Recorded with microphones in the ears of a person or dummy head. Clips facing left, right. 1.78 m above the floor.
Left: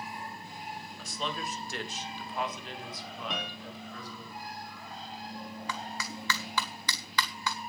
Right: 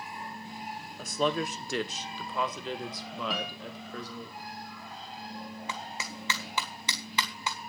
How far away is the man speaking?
About 1.0 m.